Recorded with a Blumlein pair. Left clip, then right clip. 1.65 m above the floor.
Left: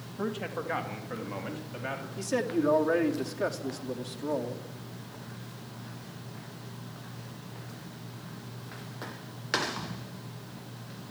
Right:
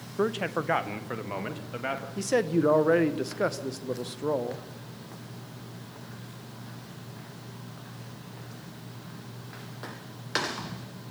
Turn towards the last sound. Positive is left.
turn(degrees=-70)